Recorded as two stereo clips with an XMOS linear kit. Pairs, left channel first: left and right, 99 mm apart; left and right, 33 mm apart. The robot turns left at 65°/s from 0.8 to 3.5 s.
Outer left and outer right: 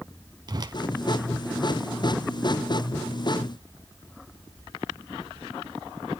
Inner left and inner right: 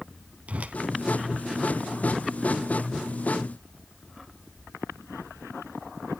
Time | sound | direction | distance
0.5 | a whoosh | 45° right (ahead or behind) | 0.5 m